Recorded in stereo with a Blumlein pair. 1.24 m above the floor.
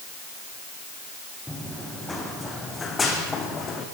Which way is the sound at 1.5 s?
5° left.